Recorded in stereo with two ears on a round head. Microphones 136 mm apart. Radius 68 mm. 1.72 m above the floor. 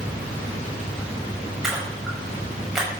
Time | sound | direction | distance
1.6 | a splash | 5° right (ahead or behind) | 7 m